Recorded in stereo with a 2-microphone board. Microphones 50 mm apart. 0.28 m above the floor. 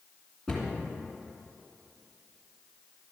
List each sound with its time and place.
0.5 s a cupboard door: 5° left (ahead or behind), 2.5 m